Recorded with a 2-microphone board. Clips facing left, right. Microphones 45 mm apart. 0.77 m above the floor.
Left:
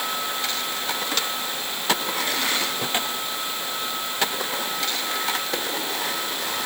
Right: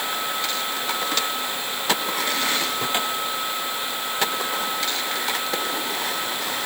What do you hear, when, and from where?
Only background noise.